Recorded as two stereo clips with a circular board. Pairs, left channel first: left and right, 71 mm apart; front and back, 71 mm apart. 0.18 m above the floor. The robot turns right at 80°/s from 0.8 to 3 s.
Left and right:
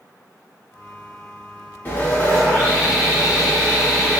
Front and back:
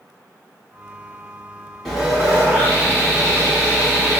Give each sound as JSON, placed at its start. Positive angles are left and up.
{"t": 1.9, "sound": "sawing", "azimuth_deg": 85, "distance_m": 1.9}